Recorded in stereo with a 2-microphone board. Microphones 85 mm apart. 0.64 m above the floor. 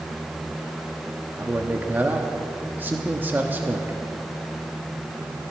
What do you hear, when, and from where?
1.4 s a man speaking: 25° right (ahead or behind), 1.0 m